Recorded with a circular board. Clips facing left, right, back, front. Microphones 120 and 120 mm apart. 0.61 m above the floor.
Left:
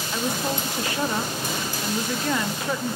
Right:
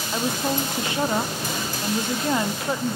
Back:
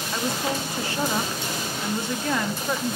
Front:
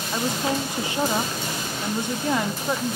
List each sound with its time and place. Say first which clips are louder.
0.1 s a woman speaking: right 2 dB, front 2 dB; 50° right, 0.9 m